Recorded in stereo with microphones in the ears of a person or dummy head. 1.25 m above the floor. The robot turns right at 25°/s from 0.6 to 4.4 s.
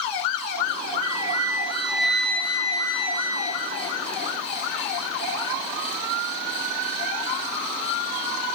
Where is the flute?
25° right, 7 m; by 3.9 s 50° left, 7 m.